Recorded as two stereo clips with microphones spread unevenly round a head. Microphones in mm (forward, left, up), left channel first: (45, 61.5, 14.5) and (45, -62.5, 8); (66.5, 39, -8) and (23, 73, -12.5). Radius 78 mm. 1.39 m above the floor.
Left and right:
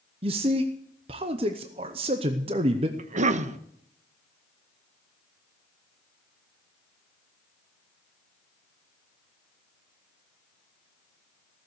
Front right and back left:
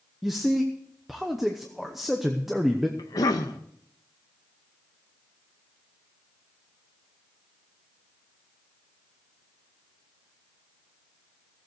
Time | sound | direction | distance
0.2 | a man speaking | 135° right | 0.7 m
3.0 | a cough | 60° right | 1.0 m